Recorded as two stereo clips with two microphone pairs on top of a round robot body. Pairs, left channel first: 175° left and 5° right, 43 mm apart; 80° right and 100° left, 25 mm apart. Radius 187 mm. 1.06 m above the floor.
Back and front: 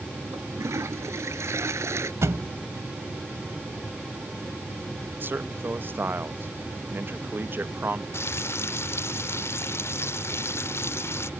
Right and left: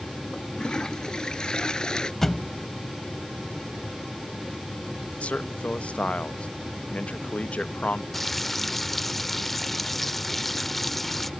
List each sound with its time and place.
0.3 s a toilet flushing: 15° right
2.2 s a thud: 5° left
5.2 s a man speaking: 50° right
8.1 s frying: 160° right